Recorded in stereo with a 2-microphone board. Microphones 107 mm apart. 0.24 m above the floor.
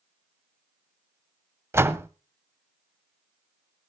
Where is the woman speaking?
No woman speaking in this recording.